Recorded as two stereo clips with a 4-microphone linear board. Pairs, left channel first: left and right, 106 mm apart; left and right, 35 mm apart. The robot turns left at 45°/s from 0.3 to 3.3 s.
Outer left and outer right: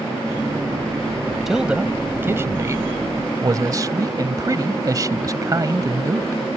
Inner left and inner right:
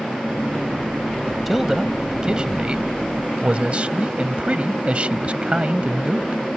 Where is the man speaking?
5° right; by 6.4 s 90° right.